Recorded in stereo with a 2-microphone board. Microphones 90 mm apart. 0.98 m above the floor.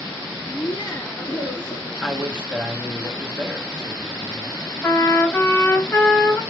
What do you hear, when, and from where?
0.5 s laughter: 25° left (ahead or behind), 1.8 m
2.0 s a man speaking: 10° right (ahead or behind), 1.7 m
4.8 s a trumpet: 20° left (ahead or behind), 2.5 m